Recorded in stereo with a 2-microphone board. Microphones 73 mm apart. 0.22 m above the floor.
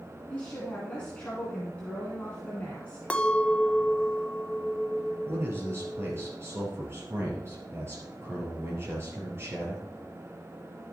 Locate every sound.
0.3 s a woman speaking: 15° left (ahead or behind), 2 m
3.1 s a clink: 15° left (ahead or behind), 0.6 m
5.2 s a man speaking: 35° right (ahead or behind), 4 m